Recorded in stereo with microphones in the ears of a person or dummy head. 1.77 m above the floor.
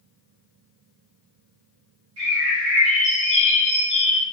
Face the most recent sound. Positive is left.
turn(degrees=-65)  # may be behind; listen again after turning